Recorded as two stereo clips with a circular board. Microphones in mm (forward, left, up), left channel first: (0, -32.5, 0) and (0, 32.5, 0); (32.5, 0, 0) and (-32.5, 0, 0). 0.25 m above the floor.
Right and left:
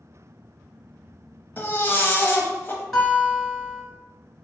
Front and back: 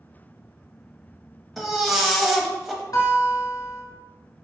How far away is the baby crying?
About 0.7 m.